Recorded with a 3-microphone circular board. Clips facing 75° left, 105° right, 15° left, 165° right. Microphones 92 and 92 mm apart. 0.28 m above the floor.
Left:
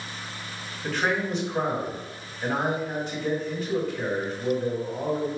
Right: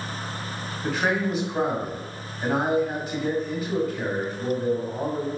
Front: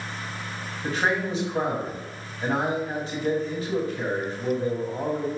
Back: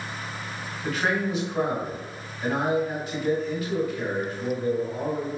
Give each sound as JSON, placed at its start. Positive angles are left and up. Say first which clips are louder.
{"t": 0.8, "sound": "a man speaking", "louder": "right 2 dB, front 1 dB", "azimuth_deg": -25, "distance_m": 1.5}